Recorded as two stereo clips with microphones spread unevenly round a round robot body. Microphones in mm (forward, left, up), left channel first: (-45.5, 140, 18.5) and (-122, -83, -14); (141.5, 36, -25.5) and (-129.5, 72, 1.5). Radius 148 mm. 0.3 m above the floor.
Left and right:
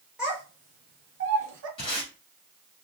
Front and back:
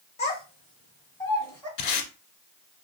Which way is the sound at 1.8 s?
5° right.